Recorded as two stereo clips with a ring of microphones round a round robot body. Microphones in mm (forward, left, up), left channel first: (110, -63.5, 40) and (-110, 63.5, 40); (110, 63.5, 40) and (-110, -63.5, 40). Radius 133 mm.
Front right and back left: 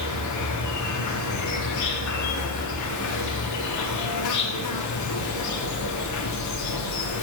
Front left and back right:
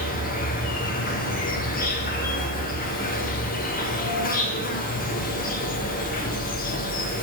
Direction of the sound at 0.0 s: 25° right.